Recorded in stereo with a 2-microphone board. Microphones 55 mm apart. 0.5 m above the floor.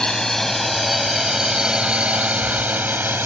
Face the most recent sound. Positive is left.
turn(degrees=-40)  # may be behind; listen again after turning